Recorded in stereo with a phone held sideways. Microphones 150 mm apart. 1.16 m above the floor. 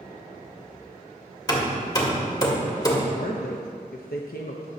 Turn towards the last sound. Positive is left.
turn(degrees=85)